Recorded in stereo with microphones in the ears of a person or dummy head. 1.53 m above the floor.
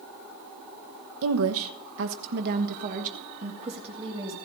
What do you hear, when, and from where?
1.2 s a woman speaking: 75° right (ahead or behind), 1.2 m; by 4.3 s 25° right (ahead or behind), 2 m